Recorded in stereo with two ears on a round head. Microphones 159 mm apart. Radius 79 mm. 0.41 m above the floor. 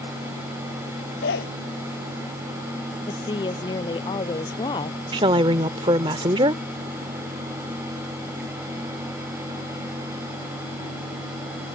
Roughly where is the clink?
No clink in this recording.